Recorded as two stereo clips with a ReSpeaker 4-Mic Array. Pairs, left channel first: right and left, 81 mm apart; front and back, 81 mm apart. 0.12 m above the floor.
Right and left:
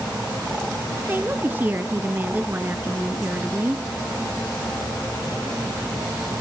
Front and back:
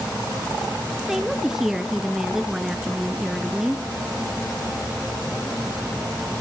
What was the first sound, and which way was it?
A woman speaking, 105° left.